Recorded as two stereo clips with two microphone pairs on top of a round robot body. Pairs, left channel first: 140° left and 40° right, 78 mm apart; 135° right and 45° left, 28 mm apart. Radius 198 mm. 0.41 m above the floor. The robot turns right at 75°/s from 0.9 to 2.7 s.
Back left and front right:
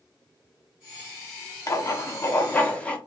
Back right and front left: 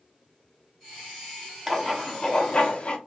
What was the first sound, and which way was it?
Writing, 125° left.